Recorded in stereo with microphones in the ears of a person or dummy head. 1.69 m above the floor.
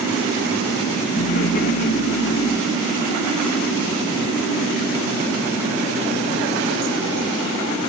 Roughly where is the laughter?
Left.